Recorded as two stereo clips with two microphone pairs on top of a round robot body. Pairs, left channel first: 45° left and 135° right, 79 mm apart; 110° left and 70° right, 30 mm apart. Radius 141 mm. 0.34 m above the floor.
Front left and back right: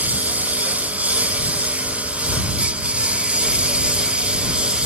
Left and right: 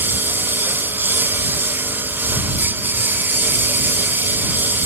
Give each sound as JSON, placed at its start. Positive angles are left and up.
{"t": 0.0, "sound": "a lawn mower", "azimuth_deg": -65}